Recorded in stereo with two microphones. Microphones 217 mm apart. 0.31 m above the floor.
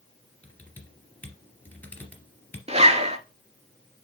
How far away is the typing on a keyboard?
About 2.5 m.